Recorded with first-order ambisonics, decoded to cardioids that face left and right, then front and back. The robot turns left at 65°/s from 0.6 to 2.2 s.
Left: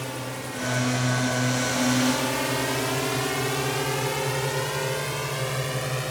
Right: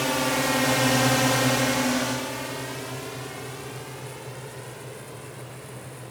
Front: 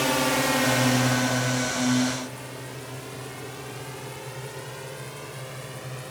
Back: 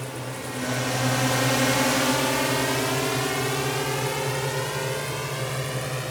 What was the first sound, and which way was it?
A drone, 35° right.